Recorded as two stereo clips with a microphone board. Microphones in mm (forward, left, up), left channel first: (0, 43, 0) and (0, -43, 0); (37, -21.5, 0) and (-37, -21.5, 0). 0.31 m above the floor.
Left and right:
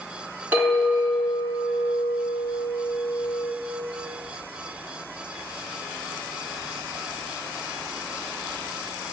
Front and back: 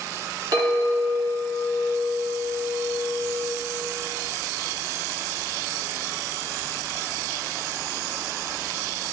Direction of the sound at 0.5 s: 155° right.